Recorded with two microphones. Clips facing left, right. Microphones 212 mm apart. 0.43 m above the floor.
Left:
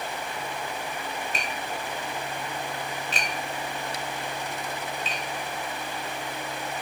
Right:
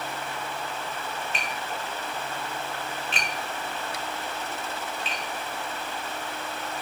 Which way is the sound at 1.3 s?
40° left (ahead or behind).